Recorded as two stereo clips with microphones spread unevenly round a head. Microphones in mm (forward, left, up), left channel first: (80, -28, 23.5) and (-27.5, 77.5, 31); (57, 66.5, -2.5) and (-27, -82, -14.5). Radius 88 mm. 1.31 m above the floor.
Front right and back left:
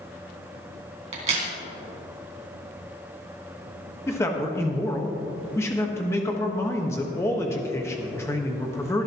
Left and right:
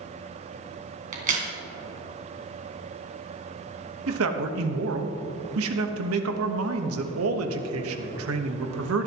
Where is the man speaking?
120° right, 1.4 m.